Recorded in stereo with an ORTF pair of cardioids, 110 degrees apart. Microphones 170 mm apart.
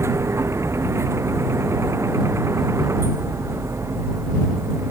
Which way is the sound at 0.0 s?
15° right.